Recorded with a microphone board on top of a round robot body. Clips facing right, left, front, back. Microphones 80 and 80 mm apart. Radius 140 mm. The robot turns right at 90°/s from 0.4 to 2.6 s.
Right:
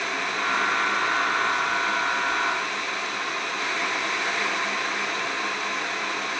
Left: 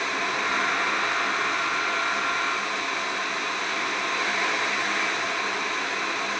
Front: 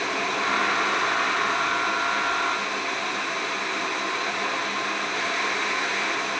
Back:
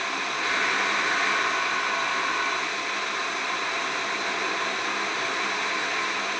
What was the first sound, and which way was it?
Only background noise.